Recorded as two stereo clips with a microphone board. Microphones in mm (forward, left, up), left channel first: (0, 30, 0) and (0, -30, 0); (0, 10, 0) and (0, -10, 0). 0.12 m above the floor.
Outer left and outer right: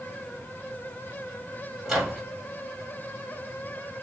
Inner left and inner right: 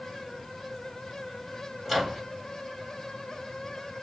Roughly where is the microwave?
Centre.